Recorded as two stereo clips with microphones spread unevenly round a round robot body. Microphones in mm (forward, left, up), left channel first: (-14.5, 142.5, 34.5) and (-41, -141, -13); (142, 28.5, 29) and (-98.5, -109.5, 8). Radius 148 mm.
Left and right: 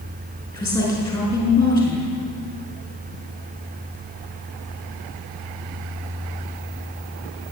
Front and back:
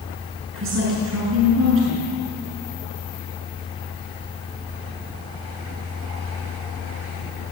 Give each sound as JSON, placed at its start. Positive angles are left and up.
{"t": 0.5, "sound": "a woman speaking", "azimuth_deg": 160, "distance_m": 6.0}